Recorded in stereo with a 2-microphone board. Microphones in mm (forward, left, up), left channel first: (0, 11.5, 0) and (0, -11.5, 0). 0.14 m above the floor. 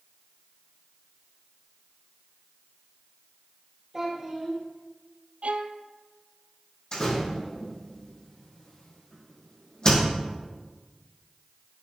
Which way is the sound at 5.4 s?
80° right.